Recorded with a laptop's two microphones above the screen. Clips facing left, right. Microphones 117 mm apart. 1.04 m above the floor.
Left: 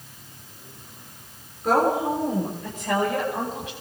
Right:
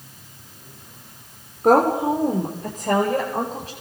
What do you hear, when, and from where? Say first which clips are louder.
1.6 s a woman speaking: right 5 dB; 50° right (ahead or behind), 3.5 m; by 3.7 s 35° right (ahead or behind), 6 m